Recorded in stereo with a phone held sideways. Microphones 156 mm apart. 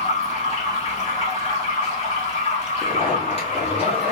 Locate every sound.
0.0 s running water: 45° left (ahead or behind), 1.7 m
2.8 s a zipper: 40° left (ahead or behind), 1.3 m